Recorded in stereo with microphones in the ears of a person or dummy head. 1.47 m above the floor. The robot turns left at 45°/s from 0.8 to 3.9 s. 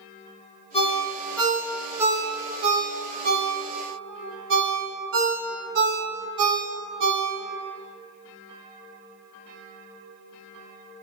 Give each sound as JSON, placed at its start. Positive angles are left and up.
{"t": 0.7, "sound": "a ringtone", "side_deg": 30, "distance_m": 0.7}